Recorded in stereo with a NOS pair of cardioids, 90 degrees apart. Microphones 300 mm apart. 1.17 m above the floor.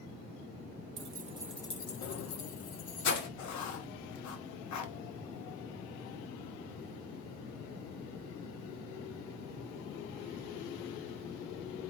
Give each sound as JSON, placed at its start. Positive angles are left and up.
{"t": 1.0, "sound": "keys jangling", "azimuth_deg": -40, "distance_m": 1.3}
{"t": 3.4, "sound": "writing", "azimuth_deg": 65, "distance_m": 1.1}